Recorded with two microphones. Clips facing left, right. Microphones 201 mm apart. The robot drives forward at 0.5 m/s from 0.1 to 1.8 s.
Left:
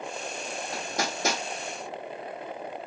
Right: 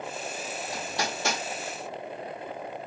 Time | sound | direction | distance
0.7 | hammering | 50° left (ahead or behind) | 2.5 m